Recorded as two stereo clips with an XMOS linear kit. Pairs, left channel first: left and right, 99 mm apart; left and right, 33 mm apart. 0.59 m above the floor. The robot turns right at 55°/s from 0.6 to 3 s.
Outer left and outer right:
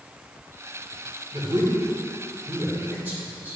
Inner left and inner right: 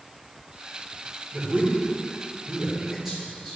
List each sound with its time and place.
1.3 s a man speaking: 55° right (ahead or behind), 2.5 m; by 3.6 s 20° right (ahead or behind), 2.5 m